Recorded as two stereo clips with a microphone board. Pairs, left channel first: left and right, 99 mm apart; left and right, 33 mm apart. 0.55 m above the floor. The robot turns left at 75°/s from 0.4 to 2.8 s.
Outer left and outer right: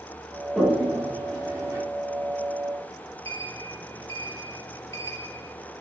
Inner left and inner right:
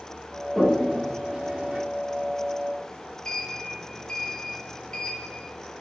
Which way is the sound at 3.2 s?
30° left (ahead or behind).